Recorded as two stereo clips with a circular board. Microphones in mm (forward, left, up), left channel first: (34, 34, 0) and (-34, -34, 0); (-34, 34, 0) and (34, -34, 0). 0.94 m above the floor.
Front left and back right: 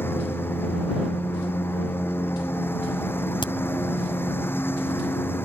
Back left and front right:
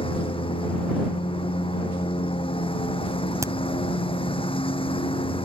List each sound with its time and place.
0.0 s a lawn mower: 110° left
3.4 s a crack: 10° left